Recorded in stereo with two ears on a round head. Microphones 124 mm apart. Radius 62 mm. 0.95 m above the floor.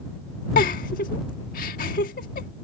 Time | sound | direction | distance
0.6 | a giggle | 65° left (ahead or behind) | ?